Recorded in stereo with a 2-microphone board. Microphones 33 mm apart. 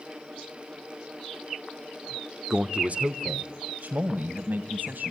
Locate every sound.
2.5 s a man speaking: 25° right (ahead or behind), 0.7 m; by 5.1 s 70° right (ahead or behind), 3 m